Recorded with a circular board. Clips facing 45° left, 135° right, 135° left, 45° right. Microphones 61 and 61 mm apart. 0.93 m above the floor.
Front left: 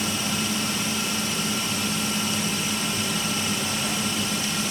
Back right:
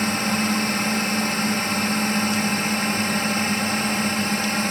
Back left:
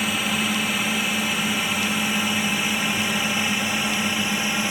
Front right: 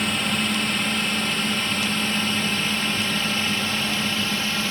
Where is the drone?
145° right; by 4.7 s 155° right.